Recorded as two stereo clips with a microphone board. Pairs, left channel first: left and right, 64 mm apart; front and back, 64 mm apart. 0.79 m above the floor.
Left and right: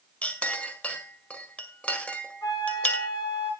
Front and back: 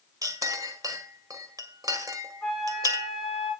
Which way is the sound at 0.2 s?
160° left.